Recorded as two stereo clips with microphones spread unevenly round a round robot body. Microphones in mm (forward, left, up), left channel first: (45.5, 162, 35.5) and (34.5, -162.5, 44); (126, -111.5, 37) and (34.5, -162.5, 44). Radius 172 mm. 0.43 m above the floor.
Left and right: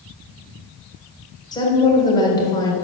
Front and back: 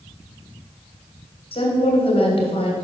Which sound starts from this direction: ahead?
A woman speaking, at 1.5 s.